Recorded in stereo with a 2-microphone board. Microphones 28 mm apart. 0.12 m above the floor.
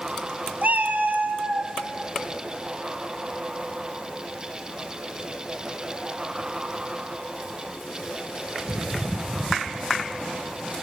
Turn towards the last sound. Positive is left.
turn(degrees=-65)  # may be behind; listen again after turning